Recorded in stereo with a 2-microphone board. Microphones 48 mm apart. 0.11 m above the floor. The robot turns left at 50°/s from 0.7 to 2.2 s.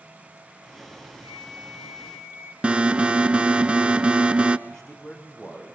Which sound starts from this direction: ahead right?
A flute, at 1.2 s.